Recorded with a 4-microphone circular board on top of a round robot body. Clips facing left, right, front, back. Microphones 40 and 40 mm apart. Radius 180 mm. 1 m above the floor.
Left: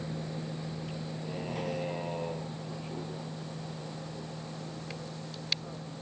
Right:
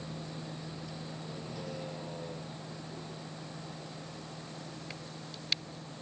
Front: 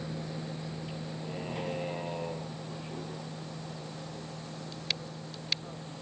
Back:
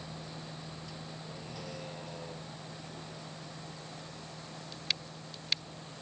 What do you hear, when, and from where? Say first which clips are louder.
0.0 s a vehicle: left 4 dB, front 6 dB; 45° left; by 6.0 s 55° left